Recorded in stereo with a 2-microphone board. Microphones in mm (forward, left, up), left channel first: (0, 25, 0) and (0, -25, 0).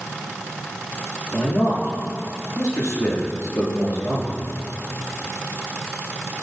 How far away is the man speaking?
About 5.5 m.